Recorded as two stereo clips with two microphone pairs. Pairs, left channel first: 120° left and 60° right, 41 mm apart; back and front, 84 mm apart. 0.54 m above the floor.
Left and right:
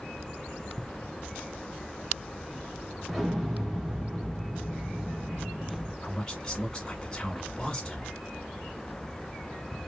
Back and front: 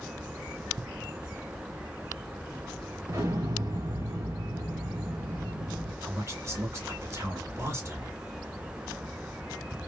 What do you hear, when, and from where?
3.1 s an explosion: 20° left, 1.1 m
6.0 s a man speaking: 50° left, 1.7 m